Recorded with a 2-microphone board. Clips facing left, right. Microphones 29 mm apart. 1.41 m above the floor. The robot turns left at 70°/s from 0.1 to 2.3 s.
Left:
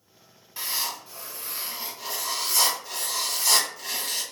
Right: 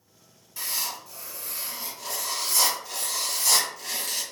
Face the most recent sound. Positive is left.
turn(degrees=5)